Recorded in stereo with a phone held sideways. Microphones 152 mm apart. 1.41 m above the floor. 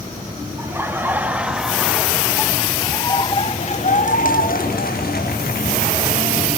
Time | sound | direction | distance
0.6 | laughter | 15° right (ahead or behind) | 2.5 m